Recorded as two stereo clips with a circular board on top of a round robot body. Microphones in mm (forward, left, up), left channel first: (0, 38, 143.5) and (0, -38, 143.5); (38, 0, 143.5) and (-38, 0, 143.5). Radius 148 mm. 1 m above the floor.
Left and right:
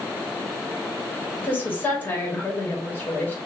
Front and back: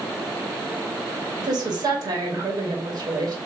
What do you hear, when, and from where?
1.4 s a woman speaking: 150° left, 1.3 m